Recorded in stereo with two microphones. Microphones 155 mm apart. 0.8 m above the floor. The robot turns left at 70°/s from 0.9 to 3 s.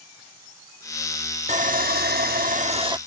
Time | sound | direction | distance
1.5 | sawing | 50° right | ?